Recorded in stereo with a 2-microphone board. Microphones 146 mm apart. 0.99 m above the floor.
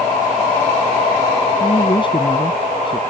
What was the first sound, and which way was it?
A man speaking, 35° left (ahead or behind).